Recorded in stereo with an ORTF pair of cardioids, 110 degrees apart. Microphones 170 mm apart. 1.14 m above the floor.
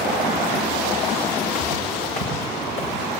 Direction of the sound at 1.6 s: 50° left.